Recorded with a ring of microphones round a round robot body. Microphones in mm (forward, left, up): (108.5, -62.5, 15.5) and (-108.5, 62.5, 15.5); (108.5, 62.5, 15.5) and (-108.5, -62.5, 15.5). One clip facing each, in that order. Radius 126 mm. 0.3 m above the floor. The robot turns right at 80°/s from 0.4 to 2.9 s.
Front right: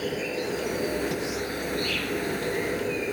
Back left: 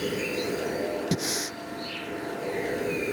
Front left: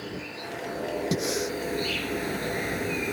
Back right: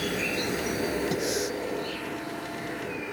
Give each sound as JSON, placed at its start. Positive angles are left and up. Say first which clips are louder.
{"t": 0.0, "sound": "an insect", "louder": "even, back right 7 dB", "azimuth_deg": -135}
{"t": 1.1, "sound": "breathing", "louder": "front right 1 dB, even", "azimuth_deg": 100}